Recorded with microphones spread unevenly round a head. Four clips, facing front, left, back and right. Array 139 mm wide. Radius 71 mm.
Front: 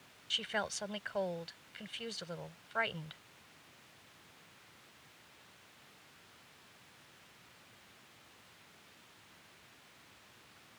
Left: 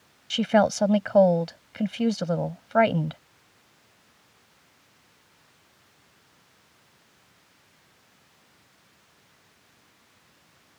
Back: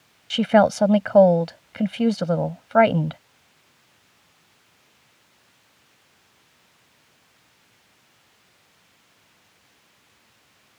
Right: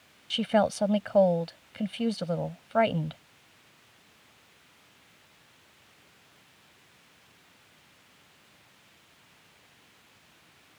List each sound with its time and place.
0.3 s a woman speaking: 170° left